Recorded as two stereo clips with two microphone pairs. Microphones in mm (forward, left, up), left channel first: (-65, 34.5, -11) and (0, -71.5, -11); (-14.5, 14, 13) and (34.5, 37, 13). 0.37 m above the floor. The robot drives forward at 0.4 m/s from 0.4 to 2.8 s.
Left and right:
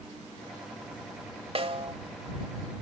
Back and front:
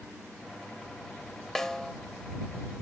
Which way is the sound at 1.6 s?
75° right.